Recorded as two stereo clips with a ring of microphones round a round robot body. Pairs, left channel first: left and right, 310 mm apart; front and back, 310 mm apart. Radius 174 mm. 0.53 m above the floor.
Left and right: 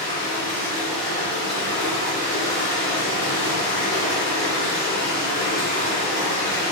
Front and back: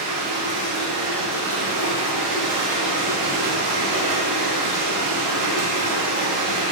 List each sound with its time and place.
0.0 s running water: 170° left, 1.4 m